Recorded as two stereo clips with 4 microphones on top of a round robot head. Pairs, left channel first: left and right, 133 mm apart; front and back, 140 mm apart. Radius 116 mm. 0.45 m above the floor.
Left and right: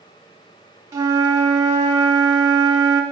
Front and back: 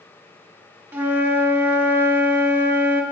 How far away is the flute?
About 1.4 m.